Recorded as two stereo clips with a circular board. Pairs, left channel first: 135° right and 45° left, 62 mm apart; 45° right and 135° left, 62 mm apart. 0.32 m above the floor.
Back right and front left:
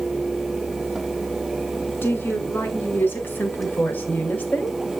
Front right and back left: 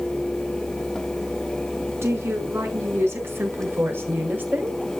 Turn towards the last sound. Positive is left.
turn(degrees=180)